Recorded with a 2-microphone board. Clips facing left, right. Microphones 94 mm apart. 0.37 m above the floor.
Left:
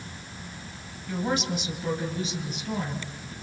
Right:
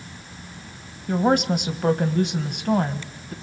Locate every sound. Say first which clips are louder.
1.1 s a woman speaking: right 8 dB; 50° right (ahead or behind), 2 m; by 3.3 s 55° right (ahead or behind), 2.5 m